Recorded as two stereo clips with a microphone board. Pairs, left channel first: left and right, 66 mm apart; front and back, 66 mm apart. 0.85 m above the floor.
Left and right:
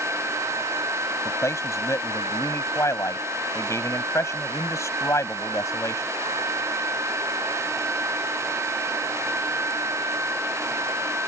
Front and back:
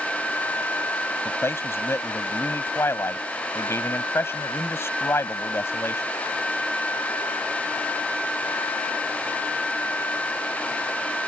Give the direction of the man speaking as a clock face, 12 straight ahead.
10 o'clock.